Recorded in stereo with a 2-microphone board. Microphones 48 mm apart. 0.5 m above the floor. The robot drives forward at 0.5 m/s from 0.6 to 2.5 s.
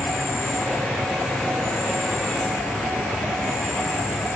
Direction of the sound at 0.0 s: 85° left.